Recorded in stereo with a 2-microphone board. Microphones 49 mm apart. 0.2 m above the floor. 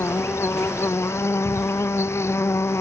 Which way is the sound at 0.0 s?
65° left (ahead or behind).